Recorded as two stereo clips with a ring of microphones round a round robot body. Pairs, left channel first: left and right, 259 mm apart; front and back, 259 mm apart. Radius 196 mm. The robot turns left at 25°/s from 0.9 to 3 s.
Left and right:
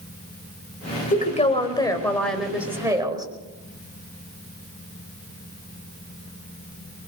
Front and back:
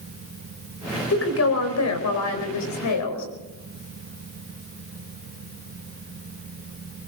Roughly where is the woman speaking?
Ahead left.